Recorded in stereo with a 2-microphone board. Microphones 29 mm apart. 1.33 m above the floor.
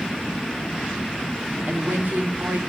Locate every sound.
1.7 s a woman speaking: 85° right, 2.5 m